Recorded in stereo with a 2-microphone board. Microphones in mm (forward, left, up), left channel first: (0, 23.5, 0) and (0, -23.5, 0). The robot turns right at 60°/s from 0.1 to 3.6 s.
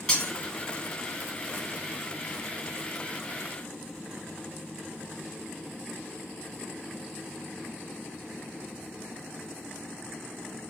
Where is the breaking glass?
10° left (ahead or behind), 3.5 m; by 0.3 s centre (ahead or behind), 3.5 m.